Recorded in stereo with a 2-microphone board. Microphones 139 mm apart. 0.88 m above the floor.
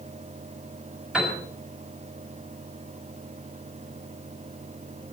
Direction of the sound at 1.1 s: 5° right (ahead or behind).